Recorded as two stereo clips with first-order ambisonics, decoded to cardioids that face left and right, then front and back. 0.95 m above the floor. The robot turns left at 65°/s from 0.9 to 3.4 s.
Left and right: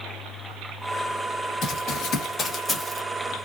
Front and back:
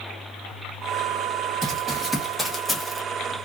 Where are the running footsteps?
135° left, 1.4 m; by 3.0 s 150° right, 0.9 m.